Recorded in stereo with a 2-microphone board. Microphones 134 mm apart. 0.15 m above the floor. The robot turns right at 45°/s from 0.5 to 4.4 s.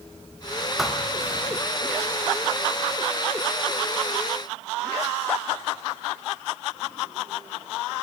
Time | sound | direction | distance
0.8 | a thud | 5° right (ahead or behind) | 3 m